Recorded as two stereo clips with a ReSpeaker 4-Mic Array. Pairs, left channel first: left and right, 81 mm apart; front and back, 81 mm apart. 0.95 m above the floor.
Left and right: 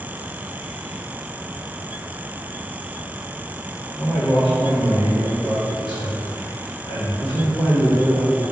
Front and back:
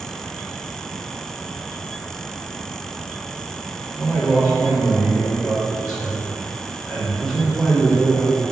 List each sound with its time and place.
4.0 s a man speaking: 95° left, 1.2 m